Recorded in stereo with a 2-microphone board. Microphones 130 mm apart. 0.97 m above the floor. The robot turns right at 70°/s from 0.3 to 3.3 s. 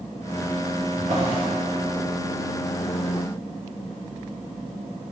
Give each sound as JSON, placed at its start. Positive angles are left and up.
{"t": 1.0, "sound": "a drawer", "side_deg": -70, "distance_m": 0.9}